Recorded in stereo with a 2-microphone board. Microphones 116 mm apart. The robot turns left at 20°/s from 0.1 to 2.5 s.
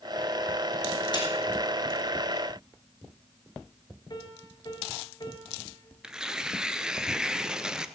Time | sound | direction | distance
1.1 | a snare drum | 45° left (ahead or behind) | 3 m
4.1 | a piano | 40° left (ahead or behind) | 1.8 m
6.0 | tearing paper | 5° right (ahead or behind) | 0.6 m